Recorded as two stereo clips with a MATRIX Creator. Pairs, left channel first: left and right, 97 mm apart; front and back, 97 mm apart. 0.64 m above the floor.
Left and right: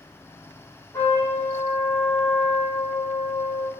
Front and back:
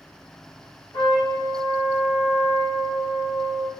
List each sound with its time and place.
0.9 s a trumpet: 25° left, 1.7 m